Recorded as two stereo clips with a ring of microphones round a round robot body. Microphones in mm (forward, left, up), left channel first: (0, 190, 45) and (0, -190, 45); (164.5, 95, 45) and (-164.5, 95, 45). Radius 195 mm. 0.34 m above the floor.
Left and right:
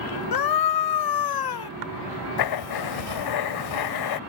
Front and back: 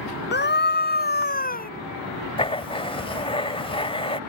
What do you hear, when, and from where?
0.3 s a scream: 60° left; by 1.7 s 65° left
2.4 s writing: 75° left